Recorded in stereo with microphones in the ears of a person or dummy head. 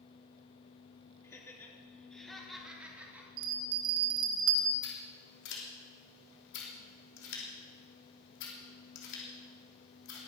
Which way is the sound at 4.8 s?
60° left (ahead or behind).